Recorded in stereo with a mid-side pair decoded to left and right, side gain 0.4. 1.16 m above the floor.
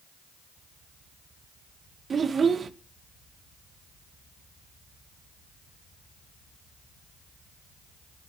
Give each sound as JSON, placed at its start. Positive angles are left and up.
{"t": 2.1, "sound": "a child speaking", "azimuth_deg": -45, "distance_m": 0.9}